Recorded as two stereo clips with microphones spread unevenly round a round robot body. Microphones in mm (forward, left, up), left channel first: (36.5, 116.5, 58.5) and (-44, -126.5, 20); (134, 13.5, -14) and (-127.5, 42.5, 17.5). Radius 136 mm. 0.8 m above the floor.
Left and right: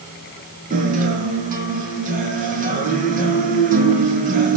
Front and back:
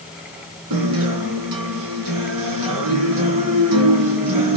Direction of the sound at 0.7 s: 170° right.